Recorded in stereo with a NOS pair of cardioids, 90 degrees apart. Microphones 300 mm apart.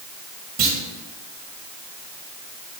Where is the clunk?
65° right, 2 m.